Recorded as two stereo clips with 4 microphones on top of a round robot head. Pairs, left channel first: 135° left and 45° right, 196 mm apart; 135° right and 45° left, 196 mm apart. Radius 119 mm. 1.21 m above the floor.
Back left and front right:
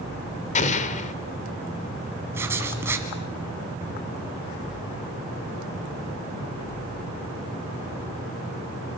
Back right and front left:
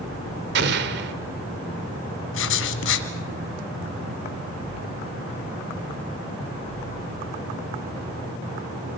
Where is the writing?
125° right, 1.7 m.